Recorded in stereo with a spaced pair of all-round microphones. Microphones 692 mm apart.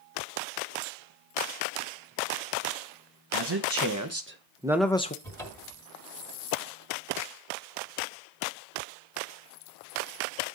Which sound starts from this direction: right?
A man speaking, at 3.3 s.